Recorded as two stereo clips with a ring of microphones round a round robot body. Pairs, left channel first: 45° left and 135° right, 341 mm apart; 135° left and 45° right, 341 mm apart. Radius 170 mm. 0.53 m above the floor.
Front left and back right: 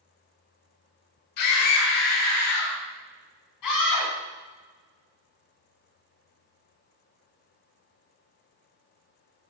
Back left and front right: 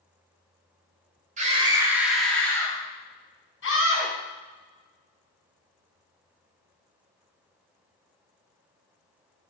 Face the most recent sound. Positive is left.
turn(degrees=80)